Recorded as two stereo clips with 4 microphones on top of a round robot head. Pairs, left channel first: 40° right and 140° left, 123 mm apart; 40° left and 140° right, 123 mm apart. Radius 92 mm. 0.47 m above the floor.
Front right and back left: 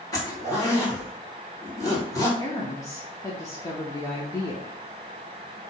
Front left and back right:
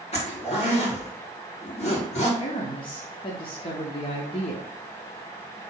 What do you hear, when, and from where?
0.1 s a zipper: 20° left, 2.0 m
2.4 s a woman speaking: 15° left, 1.0 m